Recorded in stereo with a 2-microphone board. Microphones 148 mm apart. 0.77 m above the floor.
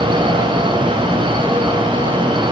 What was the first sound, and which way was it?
Only background noise.